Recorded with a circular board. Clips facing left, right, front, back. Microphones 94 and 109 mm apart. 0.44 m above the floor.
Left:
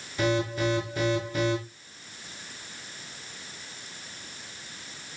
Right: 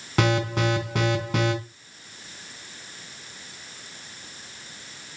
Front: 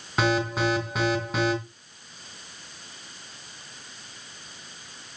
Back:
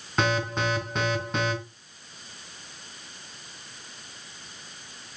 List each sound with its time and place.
0.2 s an alarm: 85° right, 3 m